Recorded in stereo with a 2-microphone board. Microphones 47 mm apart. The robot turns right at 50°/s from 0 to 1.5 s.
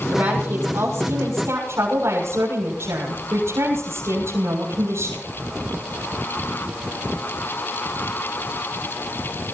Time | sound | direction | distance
0.1 | a woman speaking | 145° right | 7 m